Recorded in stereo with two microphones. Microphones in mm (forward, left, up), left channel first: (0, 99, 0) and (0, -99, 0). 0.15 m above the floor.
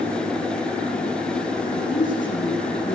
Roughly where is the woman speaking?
Left.